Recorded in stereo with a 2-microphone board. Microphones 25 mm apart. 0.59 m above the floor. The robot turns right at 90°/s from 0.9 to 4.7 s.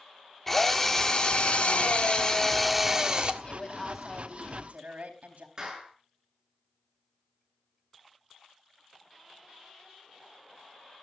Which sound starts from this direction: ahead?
A drill, at 0.5 s.